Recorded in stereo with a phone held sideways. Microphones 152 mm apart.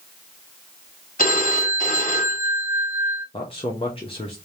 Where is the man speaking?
35° left (ahead or behind), 1.0 m.